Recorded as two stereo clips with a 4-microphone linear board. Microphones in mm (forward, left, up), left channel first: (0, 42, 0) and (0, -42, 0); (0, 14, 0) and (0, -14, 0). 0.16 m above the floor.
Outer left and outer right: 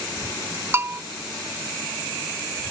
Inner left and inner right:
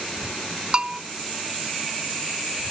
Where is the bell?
30° right (ahead or behind), 0.6 m.